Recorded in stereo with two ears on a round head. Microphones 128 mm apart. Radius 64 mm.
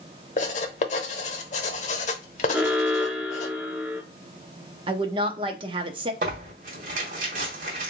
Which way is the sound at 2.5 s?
15° right (ahead or behind).